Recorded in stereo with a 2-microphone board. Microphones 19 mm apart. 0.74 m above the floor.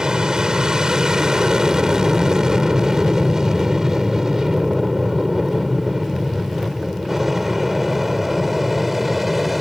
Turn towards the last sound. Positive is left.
turn(degrees=-10)  # may be behind; listen again after turning